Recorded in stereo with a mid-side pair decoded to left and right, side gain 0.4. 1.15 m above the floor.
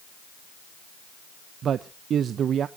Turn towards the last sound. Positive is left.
turn(degrees=-65)